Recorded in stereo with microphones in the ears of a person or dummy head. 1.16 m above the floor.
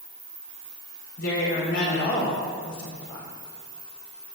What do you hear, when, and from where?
1.2 s a woman speaking: 65° left (ahead or behind), 3.5 m